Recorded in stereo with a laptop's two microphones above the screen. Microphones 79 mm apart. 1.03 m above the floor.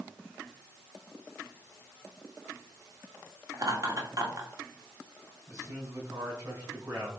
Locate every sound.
3.5 s laughter: 45° right (ahead or behind), 1.8 m
5.5 s a man speaking: 40° right (ahead or behind), 5 m